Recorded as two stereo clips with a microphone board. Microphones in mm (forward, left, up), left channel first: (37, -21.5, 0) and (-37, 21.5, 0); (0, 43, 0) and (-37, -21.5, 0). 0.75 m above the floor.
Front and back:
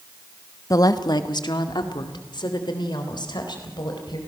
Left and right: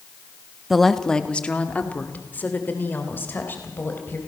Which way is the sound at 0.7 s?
30° right.